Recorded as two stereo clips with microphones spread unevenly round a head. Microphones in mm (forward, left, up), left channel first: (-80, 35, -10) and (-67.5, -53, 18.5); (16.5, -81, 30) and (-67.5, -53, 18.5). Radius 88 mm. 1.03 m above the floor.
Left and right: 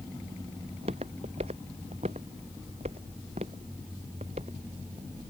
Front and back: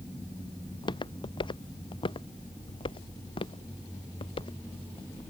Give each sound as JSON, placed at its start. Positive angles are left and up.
{"t": 0.7, "sound": "footsteps", "azimuth_deg": -50}